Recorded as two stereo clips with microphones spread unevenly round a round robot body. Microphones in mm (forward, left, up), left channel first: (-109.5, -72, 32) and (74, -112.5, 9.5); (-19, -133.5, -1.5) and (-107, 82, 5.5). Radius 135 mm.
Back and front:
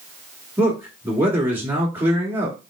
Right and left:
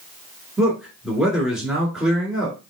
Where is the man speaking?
25° left, 1.5 m.